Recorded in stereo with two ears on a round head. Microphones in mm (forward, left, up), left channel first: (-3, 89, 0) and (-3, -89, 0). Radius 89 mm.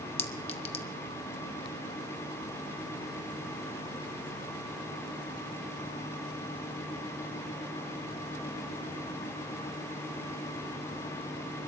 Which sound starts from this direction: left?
A clink, at 0.2 s.